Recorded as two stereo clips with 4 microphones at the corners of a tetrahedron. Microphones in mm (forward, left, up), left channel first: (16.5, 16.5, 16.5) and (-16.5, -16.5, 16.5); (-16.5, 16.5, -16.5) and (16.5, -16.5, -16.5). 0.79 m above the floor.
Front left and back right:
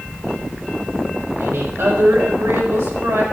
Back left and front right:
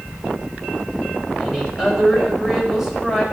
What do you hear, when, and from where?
1.4 s a woman speaking: 125° right, 4.5 m